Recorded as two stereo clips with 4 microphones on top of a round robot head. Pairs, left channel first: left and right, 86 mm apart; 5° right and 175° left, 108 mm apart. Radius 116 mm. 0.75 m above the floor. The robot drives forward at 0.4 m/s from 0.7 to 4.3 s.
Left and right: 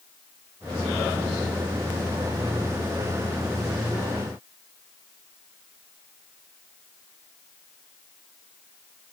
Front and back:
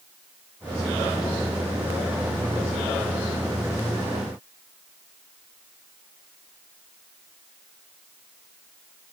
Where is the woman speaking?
I don't hear a woman speaking.